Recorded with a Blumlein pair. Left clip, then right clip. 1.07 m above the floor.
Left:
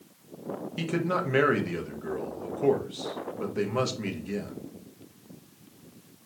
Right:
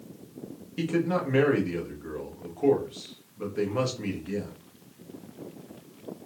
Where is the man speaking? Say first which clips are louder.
Right 2 dB; 10° left, 1.1 m.